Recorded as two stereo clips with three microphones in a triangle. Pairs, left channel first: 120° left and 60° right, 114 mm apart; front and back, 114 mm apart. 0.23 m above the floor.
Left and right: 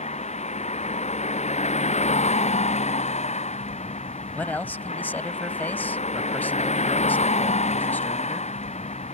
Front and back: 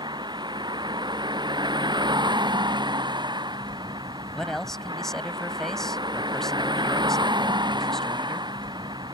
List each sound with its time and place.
0.0 s a vehicle: 130° left
4.3 s a man speaking: 80° left